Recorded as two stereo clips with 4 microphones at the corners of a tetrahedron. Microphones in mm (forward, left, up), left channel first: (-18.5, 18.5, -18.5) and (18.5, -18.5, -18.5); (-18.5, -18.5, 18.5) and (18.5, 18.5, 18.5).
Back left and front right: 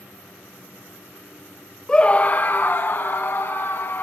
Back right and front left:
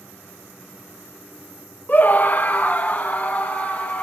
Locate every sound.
1.9 s a scream: 160° right, 0.5 m; by 4.0 s 170° left, 2 m